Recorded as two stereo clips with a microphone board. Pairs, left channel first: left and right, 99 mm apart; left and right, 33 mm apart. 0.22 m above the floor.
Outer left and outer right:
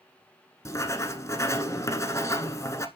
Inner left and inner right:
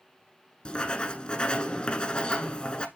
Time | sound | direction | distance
0.7 | writing | 35° left (ahead or behind) | 0.8 m